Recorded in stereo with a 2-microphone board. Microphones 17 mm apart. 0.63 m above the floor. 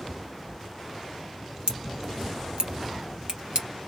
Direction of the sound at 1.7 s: 65° right (ahead or behind).